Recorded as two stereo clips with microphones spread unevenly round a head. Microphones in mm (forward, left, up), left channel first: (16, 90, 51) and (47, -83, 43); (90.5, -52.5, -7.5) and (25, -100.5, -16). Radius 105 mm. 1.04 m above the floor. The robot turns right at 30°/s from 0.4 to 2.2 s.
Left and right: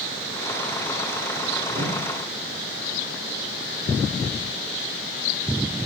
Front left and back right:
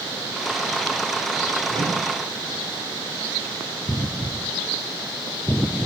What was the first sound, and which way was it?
A whoosh, 145° right.